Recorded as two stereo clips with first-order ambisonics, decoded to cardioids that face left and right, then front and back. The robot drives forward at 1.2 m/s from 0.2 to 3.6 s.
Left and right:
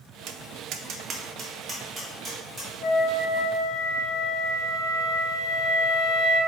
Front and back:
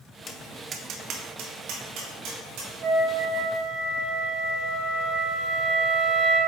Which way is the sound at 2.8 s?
130° left.